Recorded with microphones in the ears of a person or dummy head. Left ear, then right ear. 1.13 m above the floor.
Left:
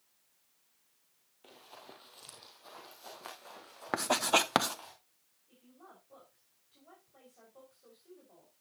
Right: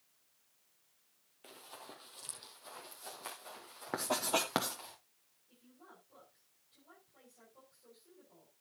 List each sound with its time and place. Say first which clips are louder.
1.4 s running footsteps: right 1 dB; 5° right (ahead or behind), 1.8 m; by 4.9 s 10° left (ahead or behind), 6.5 m
3.9 s writing: left 6 dB; 35° left (ahead or behind), 0.8 m
5.5 s a woman speaking: left 3 dB; 35° left (ahead or behind), 5.5 m